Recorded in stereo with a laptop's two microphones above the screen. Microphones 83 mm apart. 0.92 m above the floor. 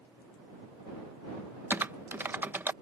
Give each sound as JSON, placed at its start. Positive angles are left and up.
{"t": 1.7, "sound": "typing on a keyboard", "side_deg": -25}